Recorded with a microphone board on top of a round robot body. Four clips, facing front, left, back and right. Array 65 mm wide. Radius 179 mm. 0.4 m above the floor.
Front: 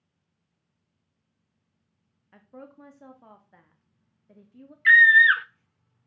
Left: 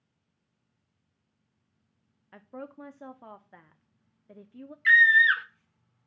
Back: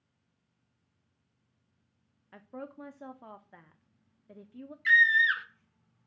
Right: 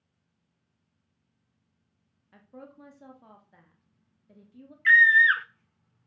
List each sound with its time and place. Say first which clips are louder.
2.3 s a woman speaking: left 5 dB, back 3 dB; 115° left, 1.6 m
4.8 s a scream: right 1 dB, front 8 dB; 5° right, 1.2 m